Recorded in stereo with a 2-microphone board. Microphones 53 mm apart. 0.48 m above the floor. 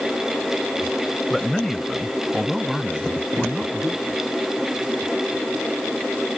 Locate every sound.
1.3 s a man speaking: 10° left (ahead or behind); by 4.2 s 15° right (ahead or behind)